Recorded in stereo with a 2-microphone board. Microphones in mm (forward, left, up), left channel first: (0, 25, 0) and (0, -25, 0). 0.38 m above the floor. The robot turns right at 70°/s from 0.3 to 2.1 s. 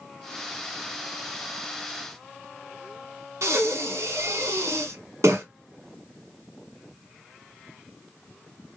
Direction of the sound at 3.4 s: 75° right (ahead or behind).